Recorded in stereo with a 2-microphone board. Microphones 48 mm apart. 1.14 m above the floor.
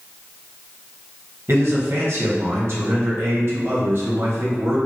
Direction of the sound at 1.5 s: 55° right (ahead or behind).